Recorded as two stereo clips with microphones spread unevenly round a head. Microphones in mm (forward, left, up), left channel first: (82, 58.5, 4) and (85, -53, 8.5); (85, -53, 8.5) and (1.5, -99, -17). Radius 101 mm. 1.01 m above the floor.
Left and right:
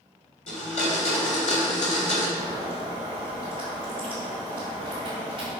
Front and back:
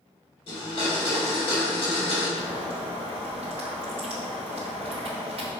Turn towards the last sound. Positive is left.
turn(degrees=-155)